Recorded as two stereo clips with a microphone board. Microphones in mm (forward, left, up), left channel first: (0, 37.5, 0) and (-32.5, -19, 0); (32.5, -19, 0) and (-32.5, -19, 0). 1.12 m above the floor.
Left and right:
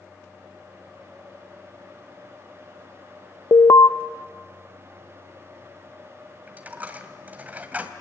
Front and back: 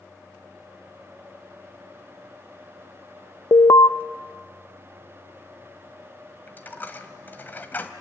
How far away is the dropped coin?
About 1.6 m.